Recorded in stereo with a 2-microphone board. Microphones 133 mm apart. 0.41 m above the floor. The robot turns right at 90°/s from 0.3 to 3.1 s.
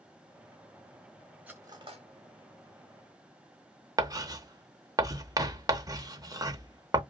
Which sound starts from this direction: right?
Writing, at 4.0 s.